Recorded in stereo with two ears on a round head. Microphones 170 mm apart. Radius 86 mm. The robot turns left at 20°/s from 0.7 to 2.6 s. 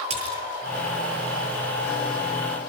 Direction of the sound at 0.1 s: 30° right (ahead or behind).